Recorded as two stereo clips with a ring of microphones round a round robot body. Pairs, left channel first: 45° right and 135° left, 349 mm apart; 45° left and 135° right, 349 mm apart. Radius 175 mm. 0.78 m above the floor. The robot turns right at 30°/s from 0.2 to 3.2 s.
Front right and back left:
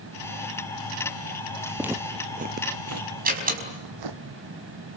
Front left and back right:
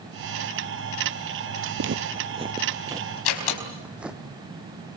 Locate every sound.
1.8 s footsteps: 140° right, 0.9 m; by 4.2 s 135° left, 1.7 m
3.2 s a door slam: 70° left, 5 m